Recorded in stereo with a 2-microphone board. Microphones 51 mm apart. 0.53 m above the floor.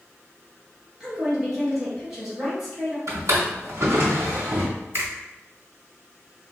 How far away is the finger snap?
About 1.6 m.